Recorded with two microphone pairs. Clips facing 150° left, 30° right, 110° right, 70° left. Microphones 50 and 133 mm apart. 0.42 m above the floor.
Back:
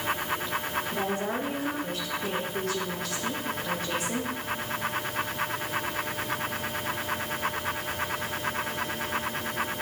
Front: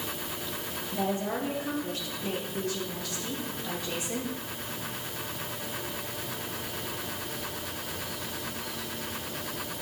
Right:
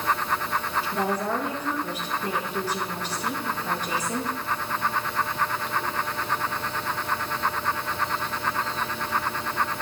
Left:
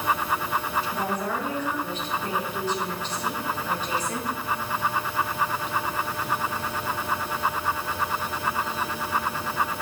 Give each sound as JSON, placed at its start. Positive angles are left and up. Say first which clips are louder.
{"t": 0.9, "sound": "a woman speaking", "louder": "front 3 dB, right 2 dB", "azimuth_deg": 170, "distance_m": 5.0}